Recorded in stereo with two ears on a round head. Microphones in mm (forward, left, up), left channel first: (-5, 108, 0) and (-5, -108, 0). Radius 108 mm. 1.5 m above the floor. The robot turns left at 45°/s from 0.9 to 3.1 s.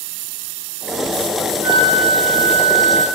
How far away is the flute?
About 2.5 m.